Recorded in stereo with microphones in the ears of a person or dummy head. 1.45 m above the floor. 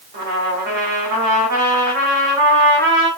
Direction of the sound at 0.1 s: 55° right (ahead or behind).